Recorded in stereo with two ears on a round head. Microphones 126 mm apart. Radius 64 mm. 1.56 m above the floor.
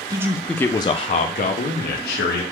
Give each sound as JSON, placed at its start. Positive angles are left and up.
{"t": 0.1, "sound": "a man speaking", "side_deg": -25, "distance_m": 0.5}